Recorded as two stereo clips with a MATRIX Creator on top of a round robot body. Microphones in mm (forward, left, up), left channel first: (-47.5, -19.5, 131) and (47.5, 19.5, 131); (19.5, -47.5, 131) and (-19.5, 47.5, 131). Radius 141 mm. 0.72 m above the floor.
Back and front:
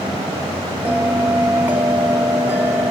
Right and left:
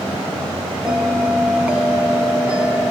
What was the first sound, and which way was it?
A bell, 50° left.